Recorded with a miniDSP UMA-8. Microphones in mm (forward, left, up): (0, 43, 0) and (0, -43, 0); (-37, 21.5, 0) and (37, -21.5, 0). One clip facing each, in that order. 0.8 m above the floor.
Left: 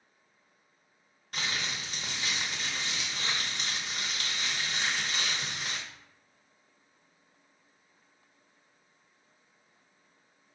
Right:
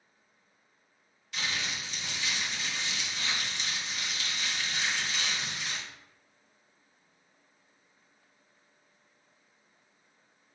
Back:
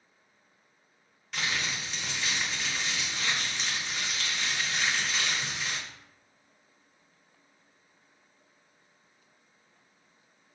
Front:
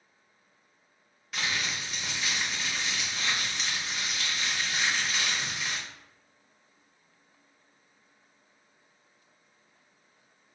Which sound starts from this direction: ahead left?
Crumpling, at 1.3 s.